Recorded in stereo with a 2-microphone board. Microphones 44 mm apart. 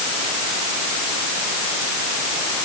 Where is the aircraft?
I don't hear an aircraft.